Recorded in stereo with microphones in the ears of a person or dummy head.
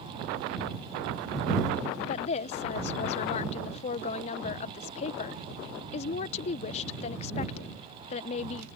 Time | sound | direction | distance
2.0 | a woman speaking | 45° left (ahead or behind) | ?